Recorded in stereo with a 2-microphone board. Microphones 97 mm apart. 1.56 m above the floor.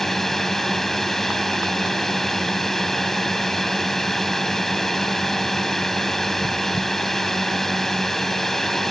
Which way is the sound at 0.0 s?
5° left (ahead or behind).